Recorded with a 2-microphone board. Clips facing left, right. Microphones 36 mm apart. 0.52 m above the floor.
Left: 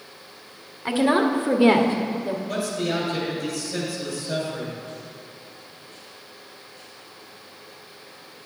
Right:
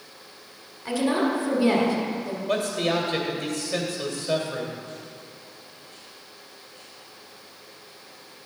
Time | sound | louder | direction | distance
0.8 | a woman speaking | left 4 dB | 40° left (ahead or behind) | 1.2 m
2.5 | a man speaking | right 5 dB | 55° right (ahead or behind) | 2 m